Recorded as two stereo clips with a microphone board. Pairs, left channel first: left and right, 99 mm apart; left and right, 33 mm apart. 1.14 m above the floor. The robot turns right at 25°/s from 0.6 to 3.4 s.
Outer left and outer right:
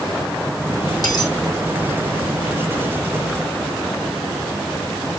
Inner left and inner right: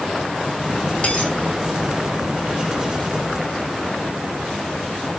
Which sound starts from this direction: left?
A dropped coin, at 1.0 s.